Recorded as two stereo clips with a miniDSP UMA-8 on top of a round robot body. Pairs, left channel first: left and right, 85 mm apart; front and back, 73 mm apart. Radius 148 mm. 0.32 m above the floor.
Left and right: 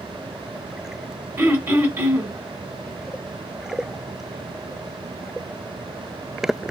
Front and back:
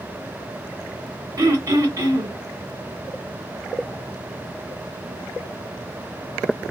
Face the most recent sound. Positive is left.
turn(degrees=-145)